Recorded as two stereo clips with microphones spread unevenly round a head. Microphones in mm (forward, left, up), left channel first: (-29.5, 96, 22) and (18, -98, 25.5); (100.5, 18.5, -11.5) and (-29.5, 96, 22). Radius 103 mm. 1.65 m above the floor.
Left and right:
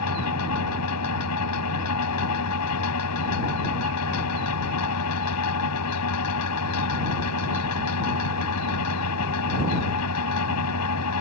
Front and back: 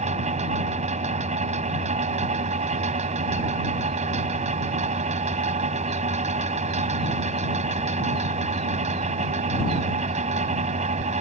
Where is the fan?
110° left.